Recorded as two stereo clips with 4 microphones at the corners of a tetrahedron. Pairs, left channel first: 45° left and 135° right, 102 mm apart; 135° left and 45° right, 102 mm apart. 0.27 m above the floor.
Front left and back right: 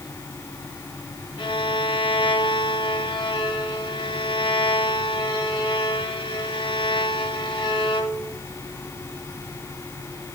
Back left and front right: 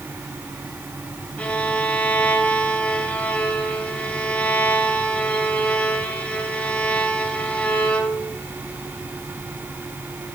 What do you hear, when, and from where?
1.4 s a violin: 60° left, 1.9 m